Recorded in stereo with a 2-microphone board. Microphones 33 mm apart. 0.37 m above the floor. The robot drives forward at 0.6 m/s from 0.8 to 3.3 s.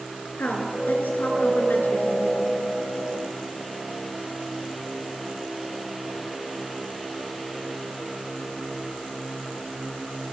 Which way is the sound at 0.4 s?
60° left (ahead or behind).